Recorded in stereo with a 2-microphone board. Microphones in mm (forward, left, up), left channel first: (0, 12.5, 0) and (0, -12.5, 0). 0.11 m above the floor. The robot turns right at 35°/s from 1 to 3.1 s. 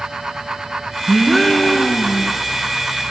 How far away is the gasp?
About 0.6 m.